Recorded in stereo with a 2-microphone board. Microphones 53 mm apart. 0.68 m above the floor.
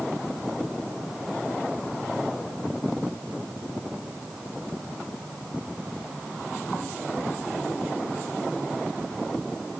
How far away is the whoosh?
No whoosh in this recording.